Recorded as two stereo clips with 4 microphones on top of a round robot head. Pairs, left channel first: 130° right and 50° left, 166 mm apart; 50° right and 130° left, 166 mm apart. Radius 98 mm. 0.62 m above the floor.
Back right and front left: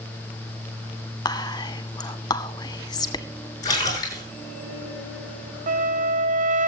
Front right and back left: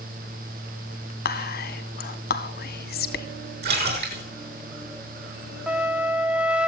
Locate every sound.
1.2 s whispering: 65° right, 2 m
3.6 s a splash: 160° left, 7.5 m
5.7 s a flute: 45° left, 1.3 m